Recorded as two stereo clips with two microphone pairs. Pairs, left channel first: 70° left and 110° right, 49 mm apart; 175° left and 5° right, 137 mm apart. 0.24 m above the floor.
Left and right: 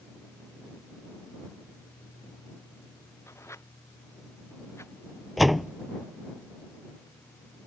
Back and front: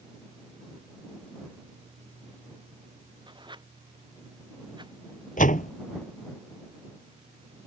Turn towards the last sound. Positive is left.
turn(degrees=160)